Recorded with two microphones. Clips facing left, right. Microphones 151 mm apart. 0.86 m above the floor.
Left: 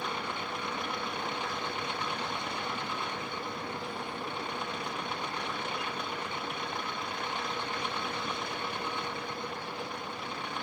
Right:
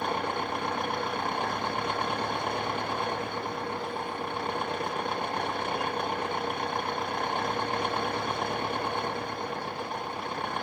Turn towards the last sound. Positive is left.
turn(degrees=-55)  # may be behind; listen again after turning